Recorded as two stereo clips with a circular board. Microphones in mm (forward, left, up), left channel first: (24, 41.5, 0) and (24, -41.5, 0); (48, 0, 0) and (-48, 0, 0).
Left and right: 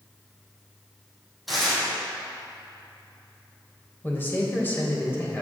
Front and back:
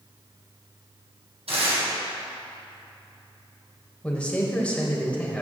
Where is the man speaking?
65° left, 1.2 m.